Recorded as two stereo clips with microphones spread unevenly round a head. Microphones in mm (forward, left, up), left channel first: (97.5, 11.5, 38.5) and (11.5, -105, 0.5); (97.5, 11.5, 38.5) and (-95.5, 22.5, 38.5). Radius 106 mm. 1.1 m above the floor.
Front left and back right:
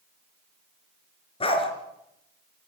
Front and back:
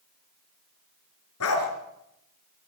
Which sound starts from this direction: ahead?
A dog barking, at 1.4 s.